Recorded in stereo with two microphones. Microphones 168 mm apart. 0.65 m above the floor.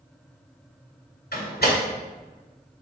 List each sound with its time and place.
1.3 s a door slam: 75° left (ahead or behind), 1.7 m